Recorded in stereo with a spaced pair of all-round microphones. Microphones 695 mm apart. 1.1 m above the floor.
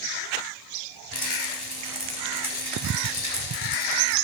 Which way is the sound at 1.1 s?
35° left (ahead or behind).